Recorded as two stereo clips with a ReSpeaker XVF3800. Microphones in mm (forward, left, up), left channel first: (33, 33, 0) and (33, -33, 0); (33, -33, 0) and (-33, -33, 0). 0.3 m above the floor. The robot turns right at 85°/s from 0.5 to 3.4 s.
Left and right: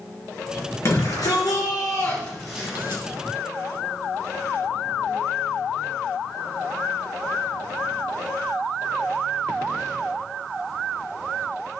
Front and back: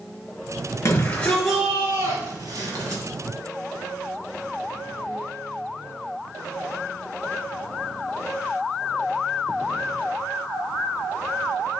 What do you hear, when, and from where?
0.8 s a shout: 40° left, 5.5 m; by 3.0 s 135° right, 5.5 m